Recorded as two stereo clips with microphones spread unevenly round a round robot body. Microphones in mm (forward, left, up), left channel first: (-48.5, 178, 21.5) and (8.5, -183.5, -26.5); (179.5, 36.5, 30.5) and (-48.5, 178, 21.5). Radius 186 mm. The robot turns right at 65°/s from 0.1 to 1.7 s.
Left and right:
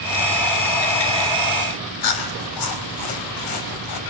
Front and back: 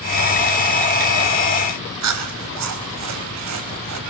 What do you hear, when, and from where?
2.0 s chewing: 130° left, 4 m